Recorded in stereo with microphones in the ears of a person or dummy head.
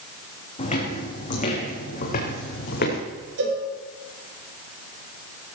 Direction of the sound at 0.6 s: 30° left (ahead or behind).